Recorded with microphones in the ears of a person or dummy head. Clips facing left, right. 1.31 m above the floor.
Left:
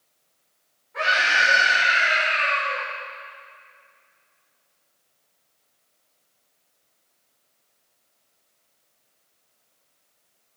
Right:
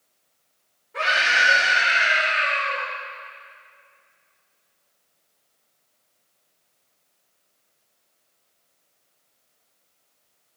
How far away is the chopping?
No chopping in this recording.